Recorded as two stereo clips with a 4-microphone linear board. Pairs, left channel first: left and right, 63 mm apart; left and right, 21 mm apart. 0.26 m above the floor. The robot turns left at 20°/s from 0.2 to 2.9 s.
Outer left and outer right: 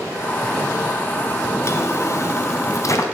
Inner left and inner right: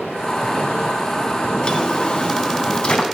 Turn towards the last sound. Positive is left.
turn(degrees=65)  # may be behind; listen again after turning